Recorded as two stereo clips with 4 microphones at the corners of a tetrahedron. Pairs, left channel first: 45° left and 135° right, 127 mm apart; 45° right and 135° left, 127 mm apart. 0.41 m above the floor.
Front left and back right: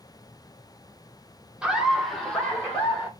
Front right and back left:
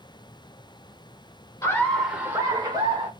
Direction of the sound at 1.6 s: 65° right.